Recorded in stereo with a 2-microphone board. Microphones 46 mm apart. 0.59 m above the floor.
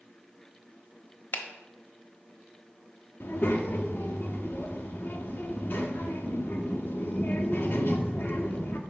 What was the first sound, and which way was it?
A finger snap, 45° left (ahead or behind).